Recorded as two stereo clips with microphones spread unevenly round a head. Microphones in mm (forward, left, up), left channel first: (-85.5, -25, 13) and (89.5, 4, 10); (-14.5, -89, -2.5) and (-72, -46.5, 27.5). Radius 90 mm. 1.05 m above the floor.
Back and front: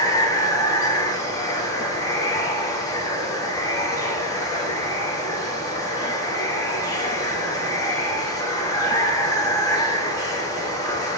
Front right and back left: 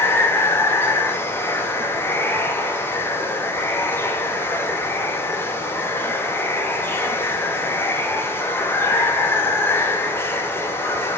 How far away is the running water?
About 1.0 m.